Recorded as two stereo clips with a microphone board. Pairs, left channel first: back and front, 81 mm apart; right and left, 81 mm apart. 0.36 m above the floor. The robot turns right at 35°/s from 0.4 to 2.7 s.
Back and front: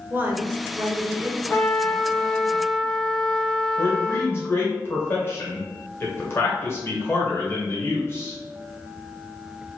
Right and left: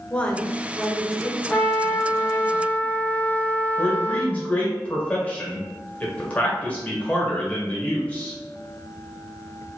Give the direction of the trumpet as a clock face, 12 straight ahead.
5 o'clock.